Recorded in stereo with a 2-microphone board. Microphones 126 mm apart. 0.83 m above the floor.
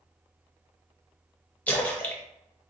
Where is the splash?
15° left (ahead or behind), 0.6 m.